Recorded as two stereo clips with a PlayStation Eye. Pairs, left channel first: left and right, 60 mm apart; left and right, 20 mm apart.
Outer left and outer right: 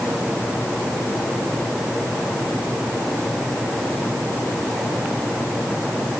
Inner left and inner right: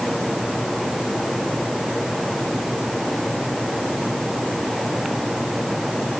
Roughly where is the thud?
No thud in this recording.